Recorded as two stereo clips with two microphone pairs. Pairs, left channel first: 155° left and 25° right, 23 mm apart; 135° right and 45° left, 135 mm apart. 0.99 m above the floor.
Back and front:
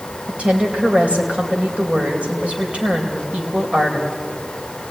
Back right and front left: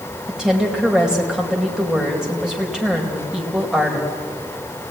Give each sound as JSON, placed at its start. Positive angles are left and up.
{"t": 0.3, "sound": "a woman speaking", "azimuth_deg": -40, "distance_m": 4.0}